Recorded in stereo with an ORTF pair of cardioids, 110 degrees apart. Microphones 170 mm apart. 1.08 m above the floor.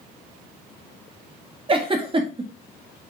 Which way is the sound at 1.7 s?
30° right.